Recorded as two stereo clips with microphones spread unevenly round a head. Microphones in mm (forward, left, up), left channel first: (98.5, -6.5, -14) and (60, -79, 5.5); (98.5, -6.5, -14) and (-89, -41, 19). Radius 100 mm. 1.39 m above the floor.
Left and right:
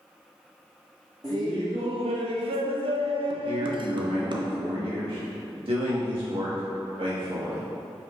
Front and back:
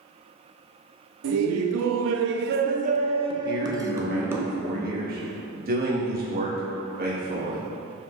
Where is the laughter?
170° left, 0.7 m; by 4.5 s 90° right, 1.5 m.